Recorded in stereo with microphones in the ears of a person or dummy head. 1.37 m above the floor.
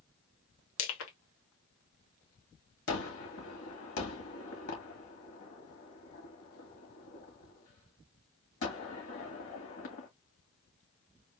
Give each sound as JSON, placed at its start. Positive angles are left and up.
{"t": 0.8, "sound": "crushing", "side_deg": 70, "distance_m": 1.4}
{"t": 2.9, "sound": "a gunshot", "side_deg": 65, "distance_m": 2.0}